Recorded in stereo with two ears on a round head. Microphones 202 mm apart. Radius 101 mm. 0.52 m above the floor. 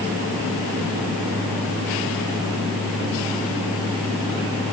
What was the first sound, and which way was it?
Only background noise.